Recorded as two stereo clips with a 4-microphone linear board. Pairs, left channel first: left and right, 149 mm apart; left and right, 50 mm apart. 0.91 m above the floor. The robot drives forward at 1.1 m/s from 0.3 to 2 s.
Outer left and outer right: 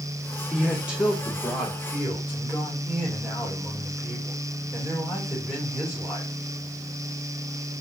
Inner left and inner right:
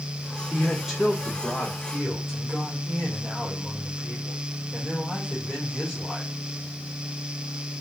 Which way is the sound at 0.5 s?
5° right (ahead or behind).